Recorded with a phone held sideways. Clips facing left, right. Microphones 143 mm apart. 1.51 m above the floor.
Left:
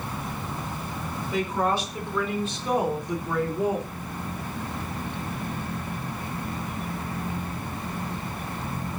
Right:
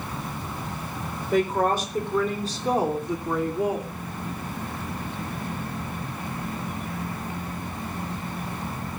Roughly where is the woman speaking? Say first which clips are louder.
Right 4 dB; right.